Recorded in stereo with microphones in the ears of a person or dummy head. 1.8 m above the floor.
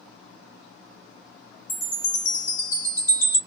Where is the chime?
15° left (ahead or behind), 0.5 m.